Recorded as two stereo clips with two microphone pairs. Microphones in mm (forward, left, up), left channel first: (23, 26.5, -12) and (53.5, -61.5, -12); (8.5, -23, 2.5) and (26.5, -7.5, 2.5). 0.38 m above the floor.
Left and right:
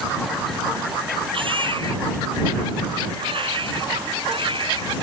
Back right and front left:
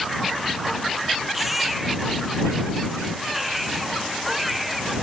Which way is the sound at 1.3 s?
45° right.